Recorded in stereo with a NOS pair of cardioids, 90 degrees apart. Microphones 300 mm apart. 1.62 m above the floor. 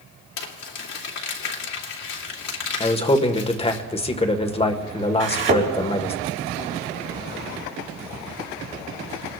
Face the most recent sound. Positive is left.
turn(degrees=-45)